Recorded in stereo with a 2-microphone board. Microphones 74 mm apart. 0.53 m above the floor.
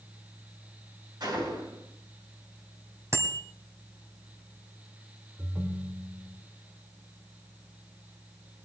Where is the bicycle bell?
35° right (ahead or behind), 2.5 m.